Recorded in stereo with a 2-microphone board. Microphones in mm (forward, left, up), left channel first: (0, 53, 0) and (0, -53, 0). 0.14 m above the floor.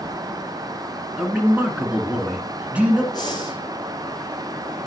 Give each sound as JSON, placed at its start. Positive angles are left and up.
{"t": 1.2, "sound": "a man speaking", "side_deg": -10, "distance_m": 1.3}
{"t": 3.1, "sound": "breathing", "side_deg": 40, "distance_m": 2.5}